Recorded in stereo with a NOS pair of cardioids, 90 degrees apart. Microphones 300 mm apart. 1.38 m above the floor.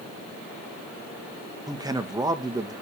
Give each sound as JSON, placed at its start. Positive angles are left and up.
{"t": 1.7, "sound": "a man speaking", "azimuth_deg": -15, "distance_m": 1.9}